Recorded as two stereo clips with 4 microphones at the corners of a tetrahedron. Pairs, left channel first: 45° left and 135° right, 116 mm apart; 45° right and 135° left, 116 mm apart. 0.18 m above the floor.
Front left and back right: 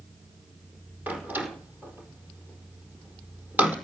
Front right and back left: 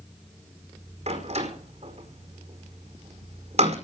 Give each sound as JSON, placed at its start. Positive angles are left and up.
{"t": 1.1, "sound": "a door slam", "azimuth_deg": 150, "distance_m": 5.0}